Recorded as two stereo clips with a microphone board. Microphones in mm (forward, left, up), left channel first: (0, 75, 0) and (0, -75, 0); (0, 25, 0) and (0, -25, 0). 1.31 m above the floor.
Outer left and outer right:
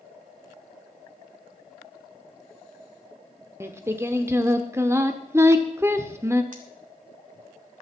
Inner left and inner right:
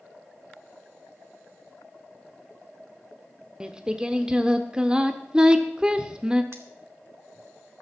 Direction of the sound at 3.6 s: 15° right (ahead or behind).